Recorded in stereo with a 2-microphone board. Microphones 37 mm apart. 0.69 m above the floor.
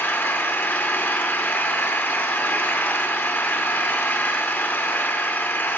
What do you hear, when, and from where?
0.0 s an engine running: 75° left (ahead or behind), 0.7 m